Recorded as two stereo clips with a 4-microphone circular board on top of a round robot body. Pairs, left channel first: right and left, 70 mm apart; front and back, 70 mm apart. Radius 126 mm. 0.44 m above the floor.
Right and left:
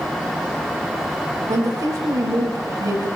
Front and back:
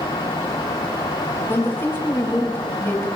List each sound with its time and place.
1.5 s a woman speaking: 55° left, 3.5 m